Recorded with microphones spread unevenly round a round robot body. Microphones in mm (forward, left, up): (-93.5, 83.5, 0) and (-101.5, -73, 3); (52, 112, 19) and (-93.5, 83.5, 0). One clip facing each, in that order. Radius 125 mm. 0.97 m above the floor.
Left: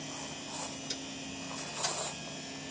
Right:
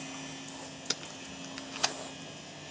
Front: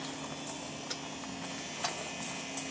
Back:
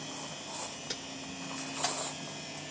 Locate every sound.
0.9 s tape being pulled: 105° right, 0.5 m